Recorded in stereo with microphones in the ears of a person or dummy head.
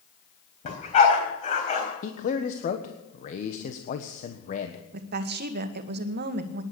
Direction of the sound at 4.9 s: 50° right (ahead or behind).